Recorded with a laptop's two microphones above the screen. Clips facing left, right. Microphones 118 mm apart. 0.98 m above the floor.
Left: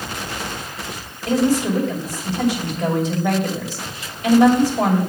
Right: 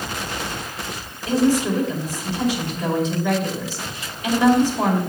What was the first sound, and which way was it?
A woman speaking, 40° left (ahead or behind).